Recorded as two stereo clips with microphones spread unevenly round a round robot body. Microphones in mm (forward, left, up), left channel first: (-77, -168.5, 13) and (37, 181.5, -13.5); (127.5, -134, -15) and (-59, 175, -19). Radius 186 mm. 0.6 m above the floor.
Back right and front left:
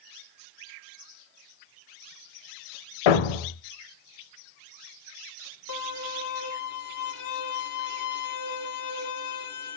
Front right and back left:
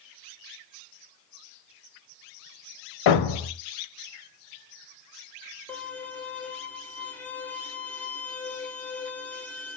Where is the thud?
90° right, 0.7 m.